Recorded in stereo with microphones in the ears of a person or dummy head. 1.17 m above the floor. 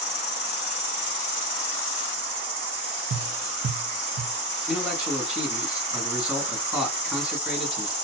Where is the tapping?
50° right (ahead or behind), 0.6 m.